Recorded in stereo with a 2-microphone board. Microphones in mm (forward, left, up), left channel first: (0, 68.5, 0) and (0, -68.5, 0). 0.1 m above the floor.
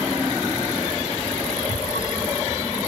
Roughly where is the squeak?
Left.